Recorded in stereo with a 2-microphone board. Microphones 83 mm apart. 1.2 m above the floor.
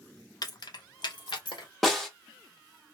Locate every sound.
0.4 s keys jangling: 50° left (ahead or behind), 0.5 m; by 1.7 s 70° left (ahead or behind), 1.2 m
1.8 s a snare drum: centre (ahead or behind), 0.9 m